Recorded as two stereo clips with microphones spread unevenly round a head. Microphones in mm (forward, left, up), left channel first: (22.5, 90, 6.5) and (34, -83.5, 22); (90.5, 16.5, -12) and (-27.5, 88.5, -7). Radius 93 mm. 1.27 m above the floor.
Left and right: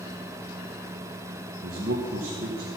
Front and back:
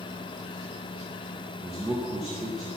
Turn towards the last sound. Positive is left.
turn(degrees=-130)